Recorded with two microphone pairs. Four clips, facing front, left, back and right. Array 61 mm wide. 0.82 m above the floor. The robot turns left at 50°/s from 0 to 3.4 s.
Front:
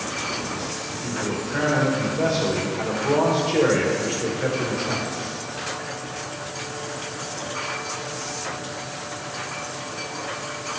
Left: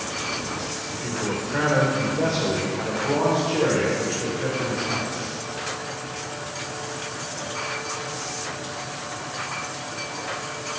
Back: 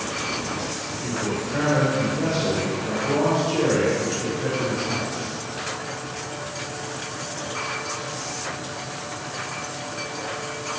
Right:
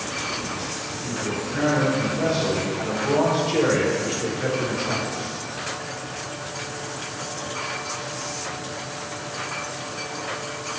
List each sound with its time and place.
0.9 s a man speaking: 115° left, 2.5 m; by 5.2 s 10° right, 2.5 m